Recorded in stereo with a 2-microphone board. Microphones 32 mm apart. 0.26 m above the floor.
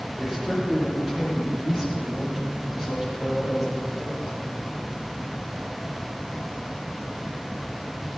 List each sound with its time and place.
0.2 s a man speaking: 15° right (ahead or behind), 7 m